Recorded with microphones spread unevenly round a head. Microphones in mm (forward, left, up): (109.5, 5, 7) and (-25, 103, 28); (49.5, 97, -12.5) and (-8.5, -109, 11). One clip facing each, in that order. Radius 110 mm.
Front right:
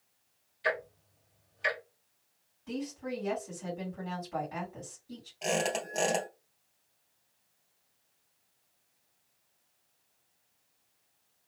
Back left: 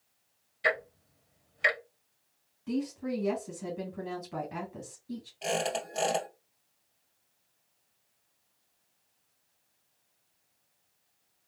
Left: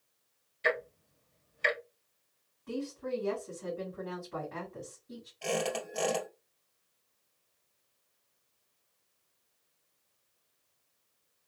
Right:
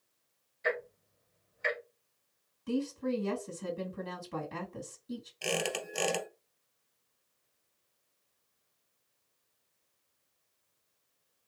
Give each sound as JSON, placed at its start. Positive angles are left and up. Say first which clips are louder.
{"t": 0.6, "sound": "ticking", "louder": "back left 2 dB, left 2 dB", "azimuth_deg": 120, "distance_m": 1.1}
{"t": 2.7, "sound": "a woman speaking", "louder": "back left 5 dB, right 4 dB", "azimuth_deg": -150, "distance_m": 2.0}
{"t": 5.4, "sound": "a squeak", "louder": "front right 1 dB, left 3 dB", "azimuth_deg": -125, "distance_m": 2.0}